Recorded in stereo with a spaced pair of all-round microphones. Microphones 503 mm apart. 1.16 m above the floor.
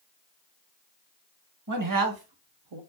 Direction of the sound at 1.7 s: 35° right (ahead or behind).